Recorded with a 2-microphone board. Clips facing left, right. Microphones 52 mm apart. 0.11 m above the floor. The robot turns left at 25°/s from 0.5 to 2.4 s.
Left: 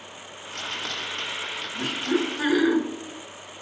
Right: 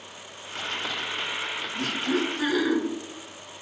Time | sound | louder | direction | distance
1.8 | laughter | left 2 dB | 20° left (ahead or behind) | 1.2 m